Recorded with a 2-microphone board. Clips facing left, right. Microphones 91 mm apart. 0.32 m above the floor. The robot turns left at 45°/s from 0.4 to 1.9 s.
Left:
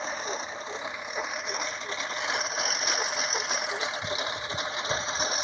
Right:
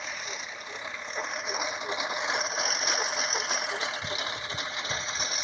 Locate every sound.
0.0 s a lawn mower: 30° left (ahead or behind); by 5.4 s 35° left (ahead or behind)